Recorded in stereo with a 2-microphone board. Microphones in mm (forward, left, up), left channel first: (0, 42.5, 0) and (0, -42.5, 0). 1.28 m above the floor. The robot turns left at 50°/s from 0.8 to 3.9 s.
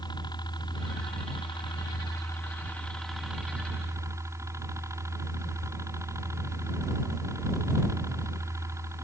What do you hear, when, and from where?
0.0 s a helicopter: 115° left; by 9.0 s 40° right